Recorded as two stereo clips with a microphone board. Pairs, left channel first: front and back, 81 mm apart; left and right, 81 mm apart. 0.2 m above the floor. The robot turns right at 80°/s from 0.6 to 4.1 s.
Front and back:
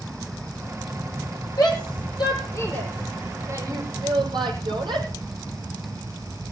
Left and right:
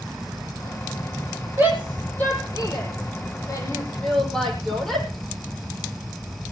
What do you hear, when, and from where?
1.6 s a shout: 30° right, 9 m; by 5.1 s 170° left, 9 m